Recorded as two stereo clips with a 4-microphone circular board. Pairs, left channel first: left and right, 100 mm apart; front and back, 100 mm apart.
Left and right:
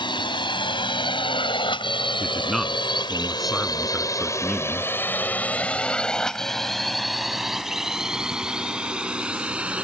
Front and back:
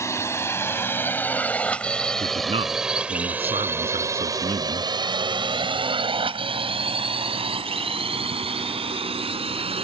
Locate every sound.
0.0 s a drone: 60° left; by 9.9 s 165° right
2.2 s a man speaking: straight behind